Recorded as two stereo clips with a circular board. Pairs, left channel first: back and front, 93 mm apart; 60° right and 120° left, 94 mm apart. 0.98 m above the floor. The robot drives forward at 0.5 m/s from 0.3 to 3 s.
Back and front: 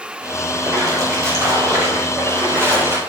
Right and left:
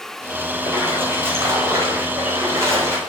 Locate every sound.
0.6 s a splash: 55° left, 6.5 m; by 3.0 s 65° left, 6 m